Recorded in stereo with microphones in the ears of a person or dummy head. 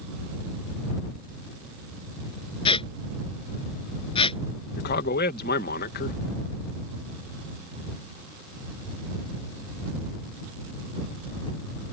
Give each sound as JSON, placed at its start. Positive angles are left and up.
{"t": 2.6, "sound": "a squeak", "side_deg": 30}
{"t": 4.8, "sound": "a man speaking", "side_deg": 50}